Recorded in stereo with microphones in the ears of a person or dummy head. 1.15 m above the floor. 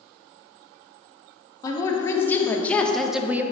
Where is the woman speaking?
25° left (ahead or behind), 1.4 m; by 3.4 s 10° right (ahead or behind), 0.6 m.